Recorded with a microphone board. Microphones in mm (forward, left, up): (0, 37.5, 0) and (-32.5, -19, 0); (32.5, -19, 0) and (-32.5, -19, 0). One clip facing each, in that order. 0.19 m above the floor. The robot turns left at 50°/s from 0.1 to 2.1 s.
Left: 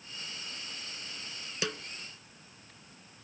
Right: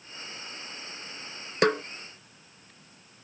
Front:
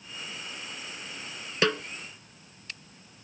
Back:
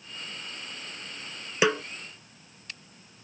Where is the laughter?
I don't hear laughter.